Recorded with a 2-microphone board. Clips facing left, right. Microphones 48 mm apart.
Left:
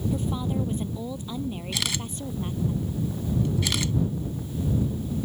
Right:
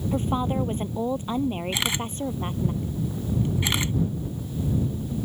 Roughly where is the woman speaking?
Right.